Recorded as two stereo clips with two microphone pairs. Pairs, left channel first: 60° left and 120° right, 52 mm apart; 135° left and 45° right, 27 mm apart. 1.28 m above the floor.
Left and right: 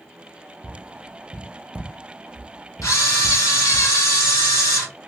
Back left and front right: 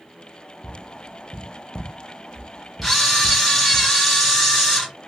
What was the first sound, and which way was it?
Tapping, 170° right.